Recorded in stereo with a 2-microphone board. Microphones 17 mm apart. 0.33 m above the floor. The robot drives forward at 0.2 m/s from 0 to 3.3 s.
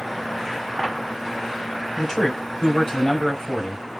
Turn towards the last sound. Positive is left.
turn(degrees=35)  # may be behind; listen again after turning